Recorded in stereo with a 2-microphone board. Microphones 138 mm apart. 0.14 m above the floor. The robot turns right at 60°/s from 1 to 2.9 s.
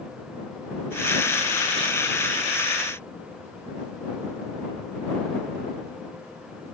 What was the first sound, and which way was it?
Only background noise.